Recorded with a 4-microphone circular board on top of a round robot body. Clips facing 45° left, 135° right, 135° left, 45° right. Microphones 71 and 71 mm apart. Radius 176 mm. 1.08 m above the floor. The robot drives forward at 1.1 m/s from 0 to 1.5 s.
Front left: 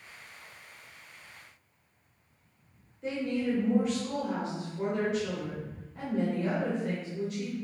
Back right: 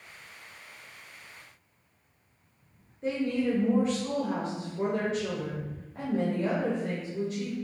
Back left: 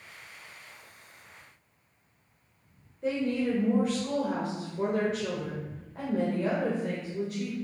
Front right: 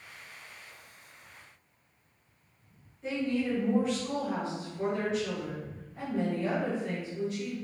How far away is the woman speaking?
About 1.2 m.